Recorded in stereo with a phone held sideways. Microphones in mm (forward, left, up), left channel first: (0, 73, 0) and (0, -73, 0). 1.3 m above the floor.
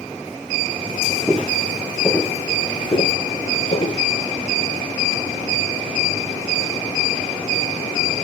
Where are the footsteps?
5° right (ahead or behind), 1.8 m; by 4.0 s 50° left (ahead or behind), 2 m.